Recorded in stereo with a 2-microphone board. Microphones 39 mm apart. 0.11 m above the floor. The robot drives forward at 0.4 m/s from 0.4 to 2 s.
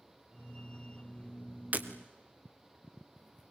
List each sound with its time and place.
1.7 s breaking glass: 45° right (ahead or behind), 2.0 m